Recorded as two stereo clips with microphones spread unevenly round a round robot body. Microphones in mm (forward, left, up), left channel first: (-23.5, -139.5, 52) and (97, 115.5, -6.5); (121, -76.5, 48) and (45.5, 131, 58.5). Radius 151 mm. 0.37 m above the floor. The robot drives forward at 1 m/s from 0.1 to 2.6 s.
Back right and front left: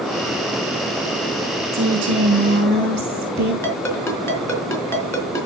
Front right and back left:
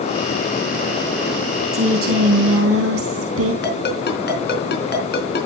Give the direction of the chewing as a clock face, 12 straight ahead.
I don't hear chewing.